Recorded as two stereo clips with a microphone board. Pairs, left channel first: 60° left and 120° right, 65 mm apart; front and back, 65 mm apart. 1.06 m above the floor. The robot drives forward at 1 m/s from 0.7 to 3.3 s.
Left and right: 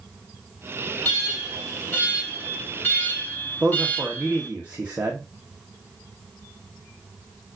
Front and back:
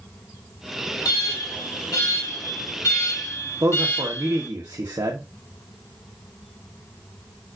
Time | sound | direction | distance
1.1 | an alarm | straight ahead | 3 m
3.6 | a man speaking | 175° left | 1.2 m